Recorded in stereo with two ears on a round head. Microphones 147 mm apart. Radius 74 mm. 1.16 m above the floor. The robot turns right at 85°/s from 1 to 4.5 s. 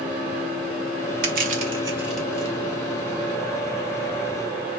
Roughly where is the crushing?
Right.